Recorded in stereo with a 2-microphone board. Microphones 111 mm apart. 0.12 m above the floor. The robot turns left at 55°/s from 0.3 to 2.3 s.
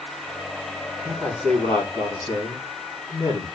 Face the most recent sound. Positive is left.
turn(degrees=120)